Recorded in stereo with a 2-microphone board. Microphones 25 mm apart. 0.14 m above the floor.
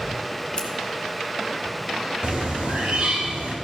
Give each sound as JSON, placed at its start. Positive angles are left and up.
{"t": 0.6, "sound": "scissors", "side_deg": 30, "distance_m": 1.9}
{"t": 2.2, "sound": "a bird", "side_deg": -50, "distance_m": 4.0}